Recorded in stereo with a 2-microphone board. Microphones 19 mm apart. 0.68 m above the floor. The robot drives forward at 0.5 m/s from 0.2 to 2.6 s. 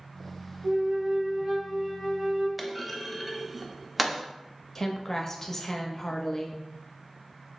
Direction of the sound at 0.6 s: 55° right (ahead or behind).